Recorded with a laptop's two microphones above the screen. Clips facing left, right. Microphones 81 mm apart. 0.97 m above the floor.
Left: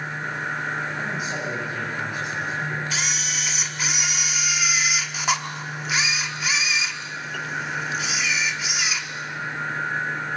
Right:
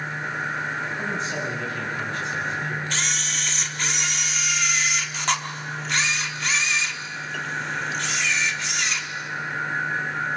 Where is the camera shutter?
5° left (ahead or behind), 1.1 m.